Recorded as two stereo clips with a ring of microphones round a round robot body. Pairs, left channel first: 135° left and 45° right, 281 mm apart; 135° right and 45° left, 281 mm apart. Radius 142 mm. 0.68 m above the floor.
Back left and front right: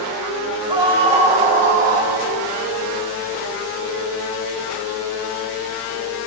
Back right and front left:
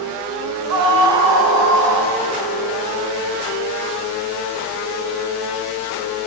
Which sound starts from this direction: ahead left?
A scream, at 0.7 s.